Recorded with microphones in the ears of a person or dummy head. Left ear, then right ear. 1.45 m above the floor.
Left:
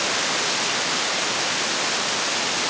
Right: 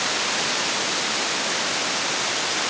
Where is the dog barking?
No dog barking in this recording.